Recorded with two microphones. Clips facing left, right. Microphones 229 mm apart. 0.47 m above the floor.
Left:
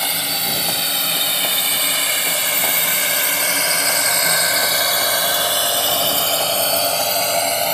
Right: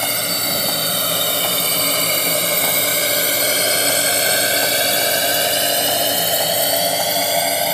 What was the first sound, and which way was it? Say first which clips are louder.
A drone: right 4 dB; 60° right (ahead or behind).